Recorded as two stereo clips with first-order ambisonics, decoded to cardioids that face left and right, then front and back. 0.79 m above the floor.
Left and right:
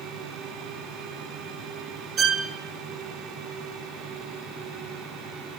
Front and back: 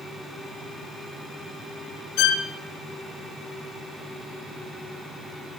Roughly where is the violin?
Ahead right.